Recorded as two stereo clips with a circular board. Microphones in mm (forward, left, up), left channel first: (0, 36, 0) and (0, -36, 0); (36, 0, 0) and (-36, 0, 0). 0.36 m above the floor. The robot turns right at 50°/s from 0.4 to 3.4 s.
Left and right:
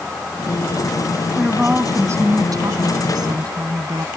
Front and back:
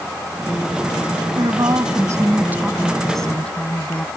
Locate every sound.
1.3 s a woman speaking: straight behind; by 4.1 s 75° right